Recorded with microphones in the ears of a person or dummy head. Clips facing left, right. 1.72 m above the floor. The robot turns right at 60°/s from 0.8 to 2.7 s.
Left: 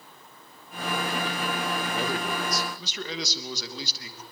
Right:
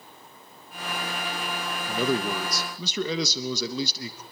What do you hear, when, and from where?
1.9 s a man speaking: 130° right, 3 m; by 4.2 s 80° right, 3 m